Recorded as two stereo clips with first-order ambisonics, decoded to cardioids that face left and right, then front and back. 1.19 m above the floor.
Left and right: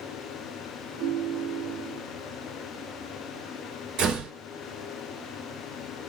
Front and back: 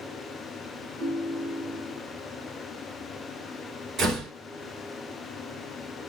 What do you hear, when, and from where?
1.0 s a ringtone: 140° right, 2.5 m
4.0 s a door slam: 120° right, 2.5 m